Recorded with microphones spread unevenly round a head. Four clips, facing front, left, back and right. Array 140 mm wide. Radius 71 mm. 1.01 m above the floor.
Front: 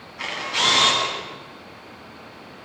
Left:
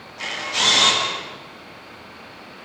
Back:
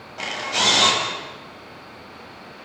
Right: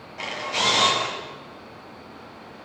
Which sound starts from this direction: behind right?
A camera shutter, at 0.2 s.